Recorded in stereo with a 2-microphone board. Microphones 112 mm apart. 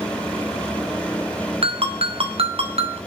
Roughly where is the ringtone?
Right.